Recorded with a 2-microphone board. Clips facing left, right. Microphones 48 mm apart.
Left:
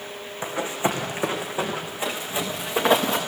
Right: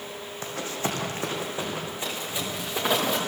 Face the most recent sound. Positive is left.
turn(degrees=20)  # may be behind; listen again after turning